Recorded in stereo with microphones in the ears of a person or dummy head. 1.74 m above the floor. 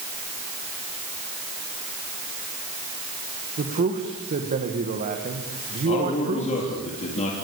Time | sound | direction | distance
3.6 | a man speaking | 45° right (ahead or behind) | 2 m
5.8 | a man speaking | 35° left (ahead or behind) | 4 m